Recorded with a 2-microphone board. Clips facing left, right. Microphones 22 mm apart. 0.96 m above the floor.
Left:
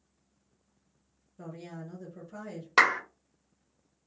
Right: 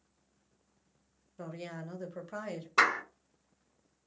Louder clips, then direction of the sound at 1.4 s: Right 1 dB; 25° right (ahead or behind).